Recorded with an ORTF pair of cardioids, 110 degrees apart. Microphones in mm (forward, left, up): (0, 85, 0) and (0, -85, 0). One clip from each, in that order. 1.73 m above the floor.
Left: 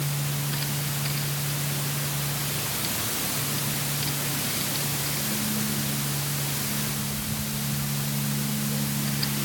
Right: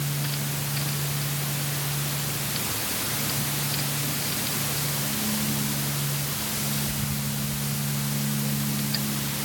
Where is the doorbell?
I don't hear a doorbell.